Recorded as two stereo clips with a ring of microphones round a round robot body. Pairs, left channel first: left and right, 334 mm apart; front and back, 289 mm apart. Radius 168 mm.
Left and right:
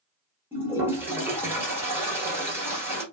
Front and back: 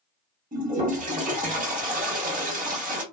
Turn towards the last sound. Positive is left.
turn(degrees=-165)